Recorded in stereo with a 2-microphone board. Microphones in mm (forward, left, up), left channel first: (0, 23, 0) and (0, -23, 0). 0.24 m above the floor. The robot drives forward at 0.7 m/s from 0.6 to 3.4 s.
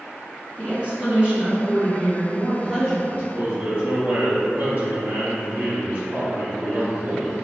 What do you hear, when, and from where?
0.6 s a woman speaking: 25° right (ahead or behind), 1.7 m; by 3.0 s 15° right (ahead or behind), 3 m
3.1 s a man speaking: 35° right (ahead or behind), 1.1 m; by 7.5 s 30° right (ahead or behind), 1.2 m